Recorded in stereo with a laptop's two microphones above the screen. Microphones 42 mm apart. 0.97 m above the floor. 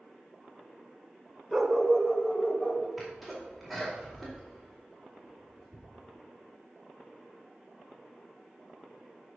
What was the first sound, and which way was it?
A dog barking, 10° right (ahead or behind).